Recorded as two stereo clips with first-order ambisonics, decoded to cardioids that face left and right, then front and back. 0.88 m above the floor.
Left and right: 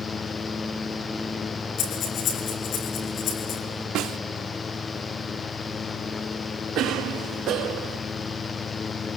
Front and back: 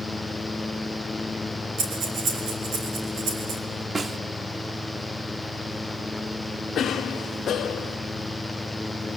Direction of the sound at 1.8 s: 140° left.